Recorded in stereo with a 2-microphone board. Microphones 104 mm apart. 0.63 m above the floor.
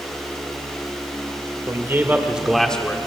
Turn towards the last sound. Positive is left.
turn(degrees=20)  # may be behind; listen again after turning